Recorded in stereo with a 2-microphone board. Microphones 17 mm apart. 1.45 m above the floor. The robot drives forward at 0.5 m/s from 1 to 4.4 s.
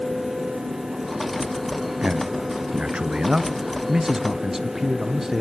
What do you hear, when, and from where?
2.0 s a man speaking: 70° right (ahead or behind), 0.7 m; by 5.4 s 30° right (ahead or behind), 1.3 m